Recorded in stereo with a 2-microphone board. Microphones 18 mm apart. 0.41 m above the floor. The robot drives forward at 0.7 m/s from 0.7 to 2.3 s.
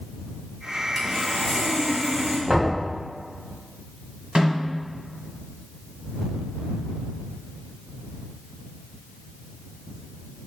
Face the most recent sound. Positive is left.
turn(degrees=-75)  # may be behind; listen again after turning